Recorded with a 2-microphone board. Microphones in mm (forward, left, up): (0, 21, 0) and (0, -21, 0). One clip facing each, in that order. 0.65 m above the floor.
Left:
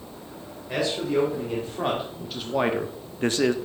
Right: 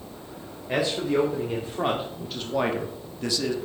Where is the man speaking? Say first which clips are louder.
Right 1 dB; 20° right (ahead or behind), 2 m; by 3.5 s 45° left (ahead or behind), 0.8 m.